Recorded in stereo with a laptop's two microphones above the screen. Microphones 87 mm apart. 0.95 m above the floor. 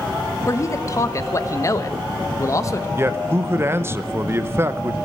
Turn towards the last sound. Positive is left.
turn(degrees=-30)  # may be behind; listen again after turning